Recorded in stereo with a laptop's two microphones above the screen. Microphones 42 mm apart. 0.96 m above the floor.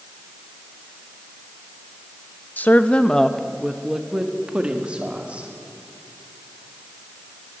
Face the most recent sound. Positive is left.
turn(degrees=-35)  # may be behind; listen again after turning